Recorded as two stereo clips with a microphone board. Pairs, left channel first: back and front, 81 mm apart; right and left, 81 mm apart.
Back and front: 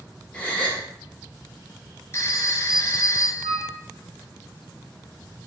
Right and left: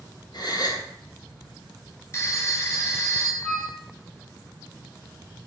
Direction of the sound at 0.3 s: 105° right.